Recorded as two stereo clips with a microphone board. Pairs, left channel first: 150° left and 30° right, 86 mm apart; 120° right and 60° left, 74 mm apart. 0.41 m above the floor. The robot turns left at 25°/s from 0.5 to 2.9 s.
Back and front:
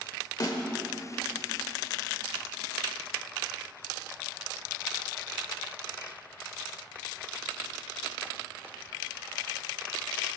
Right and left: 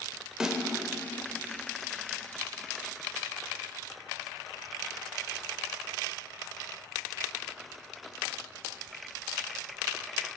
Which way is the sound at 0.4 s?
140° left.